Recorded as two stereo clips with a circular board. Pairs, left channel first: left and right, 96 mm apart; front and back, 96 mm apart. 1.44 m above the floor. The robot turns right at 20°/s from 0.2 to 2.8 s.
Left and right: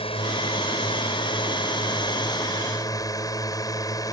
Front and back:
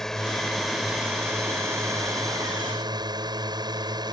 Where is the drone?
85° left; by 4.1 s 140° left.